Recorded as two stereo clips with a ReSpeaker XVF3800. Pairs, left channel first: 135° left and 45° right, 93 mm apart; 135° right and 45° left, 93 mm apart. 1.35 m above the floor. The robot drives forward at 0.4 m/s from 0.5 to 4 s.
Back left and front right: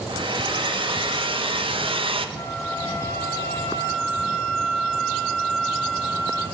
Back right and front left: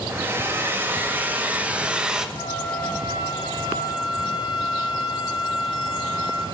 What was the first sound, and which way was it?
A hair dryer, 20° right.